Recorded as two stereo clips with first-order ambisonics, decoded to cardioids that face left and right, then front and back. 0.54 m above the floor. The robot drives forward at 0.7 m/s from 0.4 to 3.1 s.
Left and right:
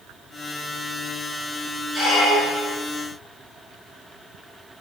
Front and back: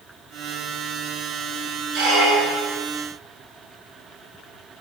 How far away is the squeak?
About 1.1 m.